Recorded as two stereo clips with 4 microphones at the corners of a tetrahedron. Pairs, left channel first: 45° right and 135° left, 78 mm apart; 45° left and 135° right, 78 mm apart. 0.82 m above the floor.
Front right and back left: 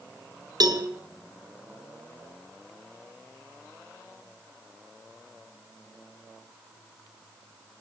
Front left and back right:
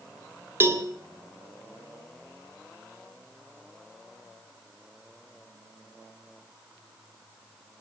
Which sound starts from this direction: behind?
A cowbell, at 0.6 s.